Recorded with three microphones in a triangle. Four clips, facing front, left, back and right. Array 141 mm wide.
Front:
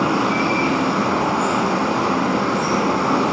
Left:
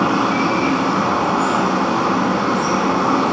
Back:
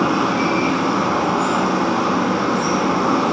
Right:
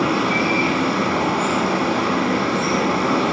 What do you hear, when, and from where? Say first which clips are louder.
0.0 s running water: left 3 dB, back 1 dB; 100° left, 0.9 m